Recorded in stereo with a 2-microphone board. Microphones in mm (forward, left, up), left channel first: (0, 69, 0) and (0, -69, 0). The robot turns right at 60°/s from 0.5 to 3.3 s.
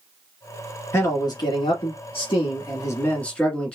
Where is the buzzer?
No buzzer in this recording.